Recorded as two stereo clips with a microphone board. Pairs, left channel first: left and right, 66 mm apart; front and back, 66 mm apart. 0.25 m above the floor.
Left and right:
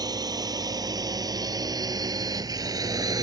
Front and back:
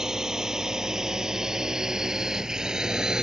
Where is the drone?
100° right.